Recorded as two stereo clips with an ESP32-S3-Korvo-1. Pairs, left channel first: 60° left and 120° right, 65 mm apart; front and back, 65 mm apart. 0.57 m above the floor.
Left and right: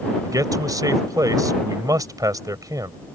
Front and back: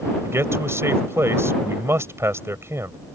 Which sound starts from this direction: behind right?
A man speaking, at 0.2 s.